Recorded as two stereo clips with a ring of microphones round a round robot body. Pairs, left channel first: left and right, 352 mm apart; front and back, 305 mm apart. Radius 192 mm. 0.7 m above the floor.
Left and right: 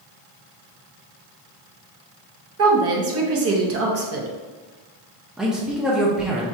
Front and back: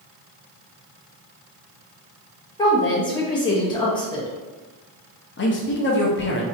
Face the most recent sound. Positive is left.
turn(degrees=-5)